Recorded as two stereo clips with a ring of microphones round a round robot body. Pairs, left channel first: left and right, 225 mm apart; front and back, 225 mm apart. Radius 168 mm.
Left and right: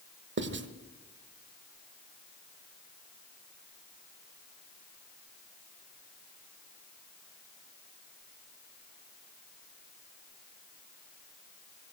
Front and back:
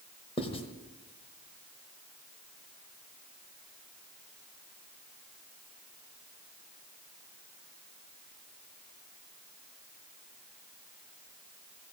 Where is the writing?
65° right, 1.1 m.